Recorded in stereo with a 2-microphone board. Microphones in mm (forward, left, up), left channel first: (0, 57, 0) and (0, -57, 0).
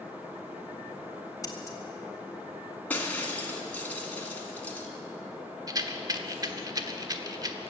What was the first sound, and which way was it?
Scissors, 30° left (ahead or behind).